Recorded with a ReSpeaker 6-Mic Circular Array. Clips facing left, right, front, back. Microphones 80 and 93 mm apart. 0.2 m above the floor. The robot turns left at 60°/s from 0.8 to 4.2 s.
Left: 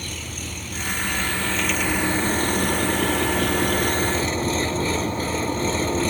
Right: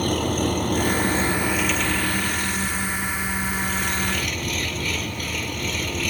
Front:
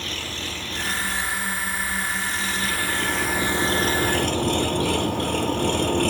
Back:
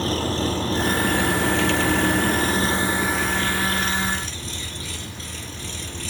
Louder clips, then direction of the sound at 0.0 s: Right 13 dB, back 10 dB; 125° right.